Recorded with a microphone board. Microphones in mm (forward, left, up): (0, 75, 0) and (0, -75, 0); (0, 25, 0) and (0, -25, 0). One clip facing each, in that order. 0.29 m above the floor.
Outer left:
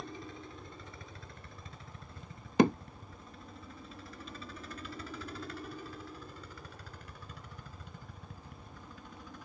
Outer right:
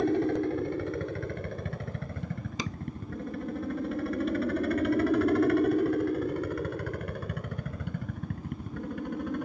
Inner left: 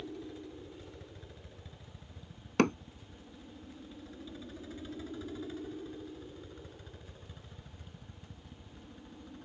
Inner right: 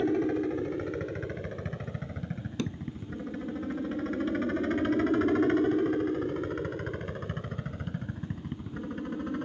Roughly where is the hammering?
Left.